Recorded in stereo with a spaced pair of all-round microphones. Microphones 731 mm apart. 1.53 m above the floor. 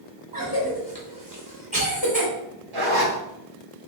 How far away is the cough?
About 1.4 m.